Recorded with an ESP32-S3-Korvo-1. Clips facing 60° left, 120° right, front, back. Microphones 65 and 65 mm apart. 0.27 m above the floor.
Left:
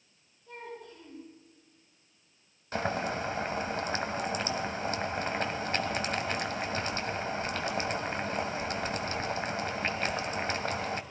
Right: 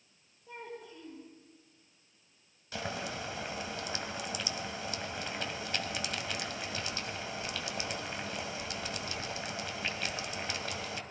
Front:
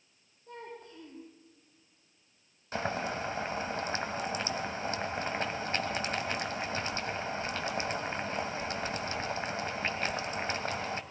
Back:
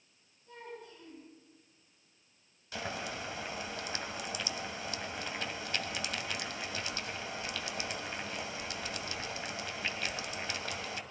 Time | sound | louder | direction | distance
0.5 | a child speaking | left 1 dB, front 2 dB | 45° right | 7.5 m
2.7 | boiling | left 7 dB, front 6 dB | 35° left | 1.7 m